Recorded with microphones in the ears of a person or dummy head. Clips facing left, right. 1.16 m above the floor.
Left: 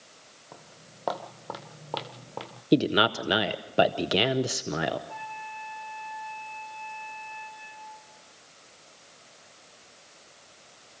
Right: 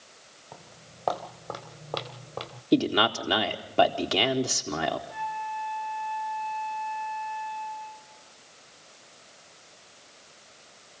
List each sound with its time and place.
0.5 s footsteps: 10° left (ahead or behind), 2.5 m; by 2.6 s centre (ahead or behind), 1.1 m
2.7 s a man speaking: 15° left (ahead or behind), 0.7 m
5.1 s a flute: 5° left (ahead or behind), 10 m